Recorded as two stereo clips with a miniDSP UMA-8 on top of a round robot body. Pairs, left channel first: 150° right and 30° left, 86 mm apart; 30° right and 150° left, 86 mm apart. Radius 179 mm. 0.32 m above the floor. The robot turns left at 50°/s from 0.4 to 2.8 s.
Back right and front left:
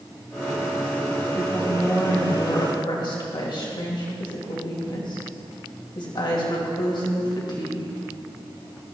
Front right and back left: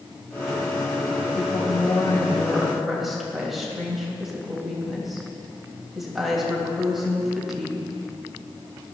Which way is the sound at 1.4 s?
50° right.